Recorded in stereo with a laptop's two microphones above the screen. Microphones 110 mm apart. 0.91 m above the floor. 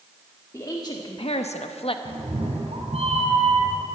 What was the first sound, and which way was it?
A woman speaking, 30° left (ahead or behind).